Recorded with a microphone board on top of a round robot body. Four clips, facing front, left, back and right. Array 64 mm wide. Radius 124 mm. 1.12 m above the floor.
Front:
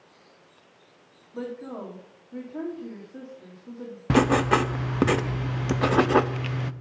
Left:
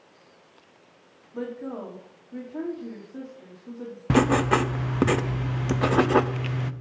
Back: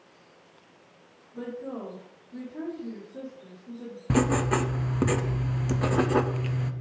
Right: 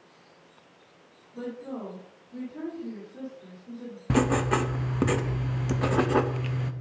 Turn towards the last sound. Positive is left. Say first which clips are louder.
# left 4 dB, front 4 dB
turn(degrees=35)